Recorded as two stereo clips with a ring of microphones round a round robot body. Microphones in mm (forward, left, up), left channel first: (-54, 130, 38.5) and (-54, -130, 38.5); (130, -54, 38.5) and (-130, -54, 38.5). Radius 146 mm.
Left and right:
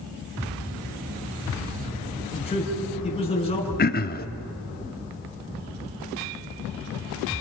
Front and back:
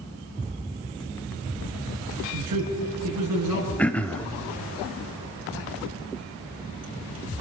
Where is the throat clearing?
80° left, 0.8 m.